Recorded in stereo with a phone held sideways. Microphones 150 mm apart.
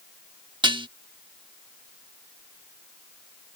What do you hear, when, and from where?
0.6 s dishes clattering: 35° right (ahead or behind)